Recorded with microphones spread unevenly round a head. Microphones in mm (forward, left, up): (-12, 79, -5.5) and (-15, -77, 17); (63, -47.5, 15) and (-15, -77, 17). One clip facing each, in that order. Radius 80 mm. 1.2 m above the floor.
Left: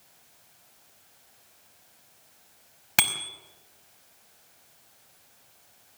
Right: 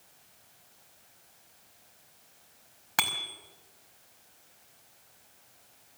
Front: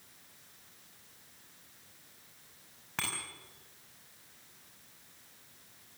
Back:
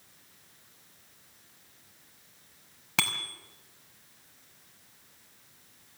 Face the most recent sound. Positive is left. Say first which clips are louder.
# left 1 dB, back 6 dB
turn(degrees=150)